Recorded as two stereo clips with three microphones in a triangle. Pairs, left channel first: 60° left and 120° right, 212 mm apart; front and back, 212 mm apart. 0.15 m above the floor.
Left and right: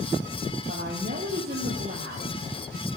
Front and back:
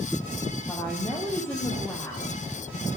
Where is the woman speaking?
80° right, 4 m.